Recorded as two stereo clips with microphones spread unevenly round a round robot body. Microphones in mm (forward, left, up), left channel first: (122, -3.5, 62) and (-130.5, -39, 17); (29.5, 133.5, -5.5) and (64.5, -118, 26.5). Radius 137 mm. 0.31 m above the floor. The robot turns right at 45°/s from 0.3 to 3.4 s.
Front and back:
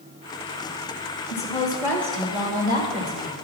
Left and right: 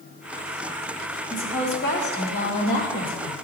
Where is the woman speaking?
70° left, 1.8 m; by 3.4 s 165° left, 1.8 m.